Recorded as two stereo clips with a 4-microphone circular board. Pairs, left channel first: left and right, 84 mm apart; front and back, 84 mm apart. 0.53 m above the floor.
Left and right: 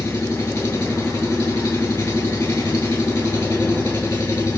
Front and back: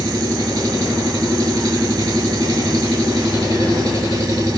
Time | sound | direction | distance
0.0 | an engine running | 150° left | 5 m